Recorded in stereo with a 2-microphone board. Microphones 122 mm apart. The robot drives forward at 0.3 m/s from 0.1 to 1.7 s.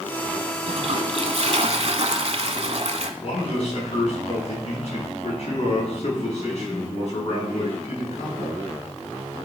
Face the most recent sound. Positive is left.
turn(degrees=60)  # may be behind; listen again after turning